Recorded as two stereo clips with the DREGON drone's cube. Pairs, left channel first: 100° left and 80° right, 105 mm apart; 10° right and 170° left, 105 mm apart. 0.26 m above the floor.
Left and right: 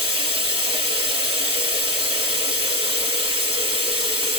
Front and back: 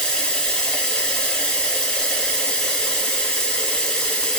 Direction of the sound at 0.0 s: 95° right.